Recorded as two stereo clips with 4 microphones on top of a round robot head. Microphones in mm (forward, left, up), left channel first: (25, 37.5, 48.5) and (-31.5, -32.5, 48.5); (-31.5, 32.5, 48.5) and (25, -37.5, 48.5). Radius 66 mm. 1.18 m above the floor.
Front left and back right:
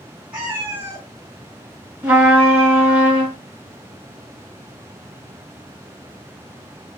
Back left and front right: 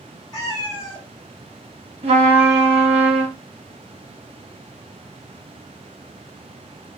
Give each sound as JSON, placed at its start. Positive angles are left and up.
{"t": 0.3, "sound": "a cat meowing", "azimuth_deg": 160, "distance_m": 1.1}
{"t": 2.0, "sound": "a trumpet", "azimuth_deg": -55, "distance_m": 1.0}